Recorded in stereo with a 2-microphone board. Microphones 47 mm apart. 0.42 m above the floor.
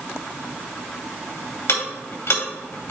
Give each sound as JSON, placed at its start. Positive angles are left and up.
{"t": 1.7, "sound": "ticking", "side_deg": 65, "distance_m": 2.5}